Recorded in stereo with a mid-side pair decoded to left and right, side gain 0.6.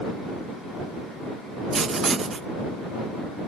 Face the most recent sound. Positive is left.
turn(degrees=-35)